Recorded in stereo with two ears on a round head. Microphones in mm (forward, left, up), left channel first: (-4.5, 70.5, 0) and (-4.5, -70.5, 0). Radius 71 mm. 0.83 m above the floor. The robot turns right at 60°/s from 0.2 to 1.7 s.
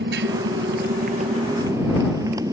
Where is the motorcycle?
80° right; by 2.5 s 25° right (ahead or behind).